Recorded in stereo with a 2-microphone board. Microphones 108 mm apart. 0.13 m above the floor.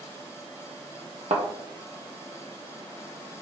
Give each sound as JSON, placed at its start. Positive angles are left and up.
{"t": 1.3, "sound": "a thud", "side_deg": -80, "distance_m": 0.8}